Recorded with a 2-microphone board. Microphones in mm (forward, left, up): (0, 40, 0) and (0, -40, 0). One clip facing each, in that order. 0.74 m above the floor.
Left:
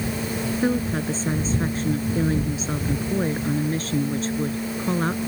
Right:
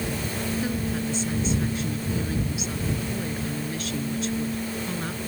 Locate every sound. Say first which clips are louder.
0.6 s a woman speaking: left 5 dB; 40° left (ahead or behind)